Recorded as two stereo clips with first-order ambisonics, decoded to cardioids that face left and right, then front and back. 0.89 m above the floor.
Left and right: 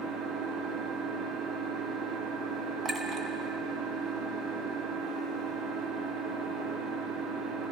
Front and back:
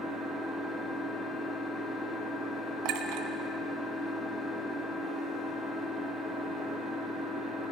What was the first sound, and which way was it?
An engine running, 95° right.